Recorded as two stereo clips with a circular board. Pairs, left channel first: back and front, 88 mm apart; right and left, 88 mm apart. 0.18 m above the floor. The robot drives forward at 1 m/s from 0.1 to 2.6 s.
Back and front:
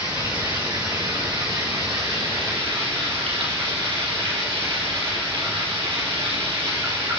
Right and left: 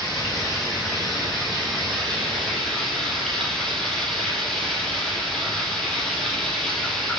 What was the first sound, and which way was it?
Running water, 5° right.